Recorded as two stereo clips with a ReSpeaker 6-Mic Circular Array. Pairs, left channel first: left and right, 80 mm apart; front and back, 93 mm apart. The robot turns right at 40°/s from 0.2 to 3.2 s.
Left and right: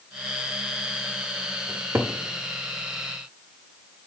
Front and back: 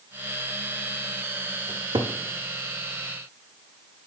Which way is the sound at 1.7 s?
160° right.